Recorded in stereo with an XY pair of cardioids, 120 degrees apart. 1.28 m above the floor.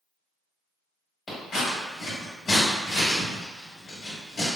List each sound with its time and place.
1.3 s scissors: 40° left, 1.8 m